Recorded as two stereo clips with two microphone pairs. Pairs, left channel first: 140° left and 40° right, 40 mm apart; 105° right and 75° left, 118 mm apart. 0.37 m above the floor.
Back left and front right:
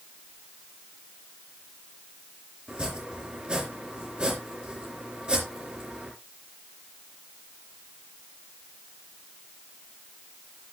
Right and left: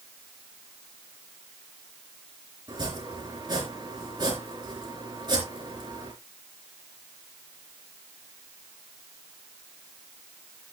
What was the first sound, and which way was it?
Chopping, 25° left.